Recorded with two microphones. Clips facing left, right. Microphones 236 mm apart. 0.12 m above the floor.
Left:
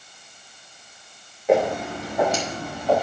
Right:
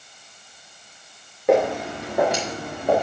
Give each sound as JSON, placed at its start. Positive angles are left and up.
{"t": 1.5, "sound": "footsteps", "side_deg": -70, "distance_m": 5.0}